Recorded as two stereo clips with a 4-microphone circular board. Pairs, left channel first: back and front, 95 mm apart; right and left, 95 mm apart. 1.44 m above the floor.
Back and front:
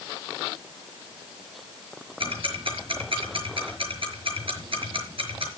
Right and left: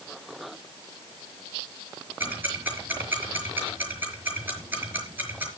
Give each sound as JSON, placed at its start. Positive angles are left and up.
{"t": 2.2, "sound": "ticking", "azimuth_deg": 20, "distance_m": 5.0}